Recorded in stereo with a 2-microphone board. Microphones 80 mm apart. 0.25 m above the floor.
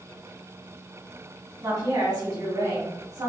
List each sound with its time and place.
1.6 s a woman speaking: 55° right (ahead or behind), 1.7 m